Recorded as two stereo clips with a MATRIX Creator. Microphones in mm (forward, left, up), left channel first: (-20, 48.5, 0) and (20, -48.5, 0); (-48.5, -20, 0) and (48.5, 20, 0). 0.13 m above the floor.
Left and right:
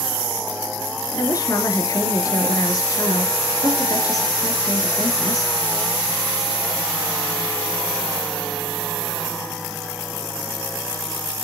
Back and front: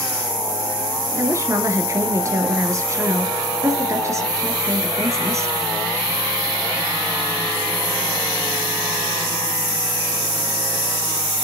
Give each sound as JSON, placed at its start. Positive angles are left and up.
{"t": 1.2, "sound": "a woman speaking", "azimuth_deg": 75, "distance_m": 2.0}